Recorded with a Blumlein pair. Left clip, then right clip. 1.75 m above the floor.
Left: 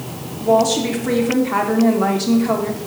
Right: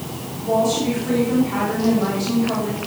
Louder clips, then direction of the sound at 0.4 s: Left 4 dB; 65° left.